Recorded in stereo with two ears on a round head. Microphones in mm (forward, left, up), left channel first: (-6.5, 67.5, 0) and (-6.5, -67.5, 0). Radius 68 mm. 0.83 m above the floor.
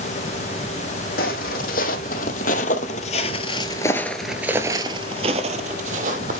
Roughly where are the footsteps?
Left.